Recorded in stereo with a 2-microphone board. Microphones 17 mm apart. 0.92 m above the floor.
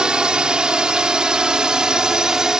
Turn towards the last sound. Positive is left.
turn(degrees=-45)  # may be behind; listen again after turning